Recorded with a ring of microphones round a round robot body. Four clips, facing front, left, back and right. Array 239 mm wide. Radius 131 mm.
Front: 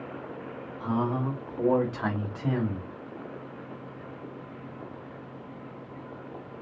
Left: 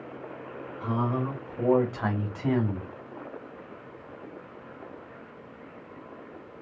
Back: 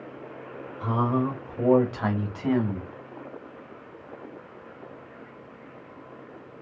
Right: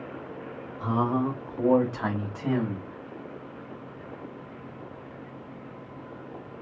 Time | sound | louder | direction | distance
0.8 | a man speaking | right 3 dB, back 3 dB | 120° right | 1.5 m